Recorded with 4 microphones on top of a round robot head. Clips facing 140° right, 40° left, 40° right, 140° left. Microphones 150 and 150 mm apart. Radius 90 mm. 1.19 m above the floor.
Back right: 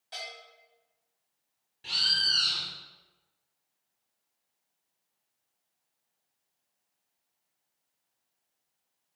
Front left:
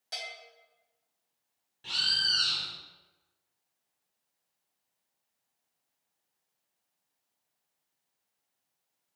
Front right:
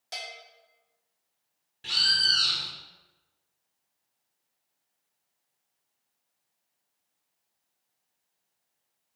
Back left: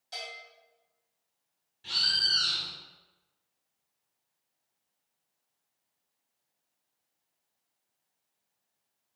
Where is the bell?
5° right, 2.5 m.